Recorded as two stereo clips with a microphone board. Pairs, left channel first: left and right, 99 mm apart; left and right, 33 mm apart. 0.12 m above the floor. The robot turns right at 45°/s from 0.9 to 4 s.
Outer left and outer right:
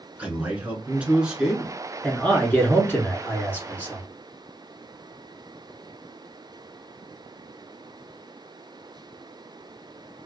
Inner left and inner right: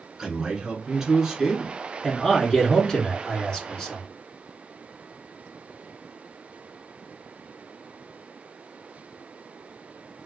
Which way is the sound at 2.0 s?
15° left (ahead or behind).